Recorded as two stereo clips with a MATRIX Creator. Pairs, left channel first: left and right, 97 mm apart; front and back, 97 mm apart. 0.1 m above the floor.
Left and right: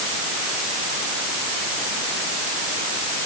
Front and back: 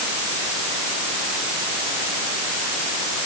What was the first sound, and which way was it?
Only background noise.